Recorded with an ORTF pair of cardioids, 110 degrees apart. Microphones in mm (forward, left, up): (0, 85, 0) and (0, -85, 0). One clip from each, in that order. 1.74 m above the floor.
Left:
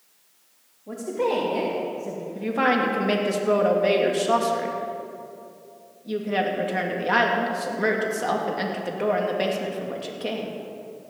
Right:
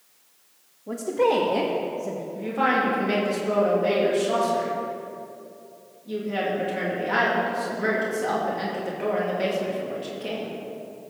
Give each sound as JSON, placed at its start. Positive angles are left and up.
{"t": 0.9, "sound": "a woman speaking", "azimuth_deg": -15, "distance_m": 2.5}
{"t": 2.4, "sound": "a woman speaking", "azimuth_deg": 35, "distance_m": 3.0}